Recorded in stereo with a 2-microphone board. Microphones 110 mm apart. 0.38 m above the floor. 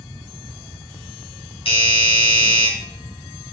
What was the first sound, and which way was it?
A doorbell, 55° left (ahead or behind).